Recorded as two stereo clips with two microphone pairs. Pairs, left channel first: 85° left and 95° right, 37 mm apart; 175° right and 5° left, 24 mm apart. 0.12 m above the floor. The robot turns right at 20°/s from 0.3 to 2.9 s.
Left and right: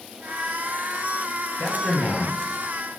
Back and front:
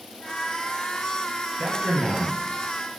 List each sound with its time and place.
1.6 s a man speaking: 35° left, 3.5 m; by 2.9 s 60° left, 3.5 m